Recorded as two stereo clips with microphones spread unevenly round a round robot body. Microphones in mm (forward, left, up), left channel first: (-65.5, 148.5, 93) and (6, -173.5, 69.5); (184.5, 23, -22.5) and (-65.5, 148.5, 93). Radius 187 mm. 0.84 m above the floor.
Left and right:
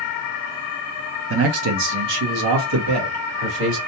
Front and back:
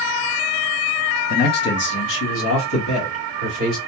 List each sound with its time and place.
1.3 s a man speaking: 40° right, 0.6 m; by 3.8 s 60° right, 1.7 m